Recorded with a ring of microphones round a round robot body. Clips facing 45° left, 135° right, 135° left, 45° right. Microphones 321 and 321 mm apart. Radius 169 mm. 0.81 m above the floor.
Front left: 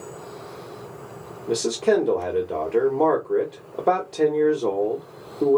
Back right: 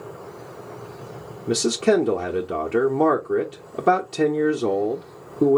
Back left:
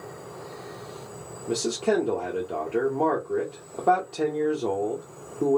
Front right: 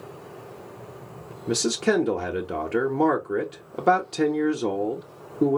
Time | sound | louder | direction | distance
1.5 | a man speaking | back right 1 dB, front right 2 dB | 80° right | 0.9 m